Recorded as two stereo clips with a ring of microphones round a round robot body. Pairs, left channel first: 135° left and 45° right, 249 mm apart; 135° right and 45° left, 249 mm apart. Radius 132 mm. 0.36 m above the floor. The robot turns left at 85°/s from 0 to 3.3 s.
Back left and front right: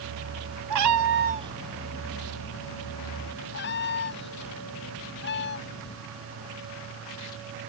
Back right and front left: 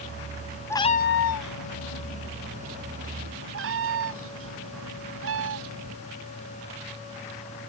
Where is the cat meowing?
55° right; by 6.0 s 85° left.